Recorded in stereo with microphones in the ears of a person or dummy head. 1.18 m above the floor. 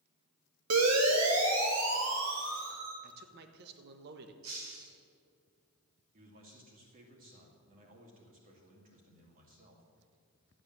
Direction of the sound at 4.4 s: 85° right.